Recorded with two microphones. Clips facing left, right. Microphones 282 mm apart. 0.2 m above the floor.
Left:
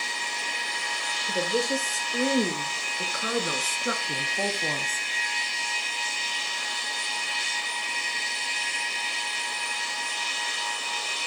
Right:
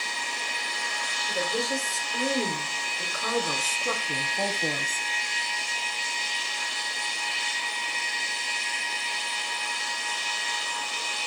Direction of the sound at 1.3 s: 30° left (ahead or behind).